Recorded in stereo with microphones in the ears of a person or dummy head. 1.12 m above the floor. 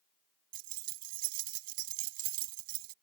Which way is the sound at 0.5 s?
55° right (ahead or behind).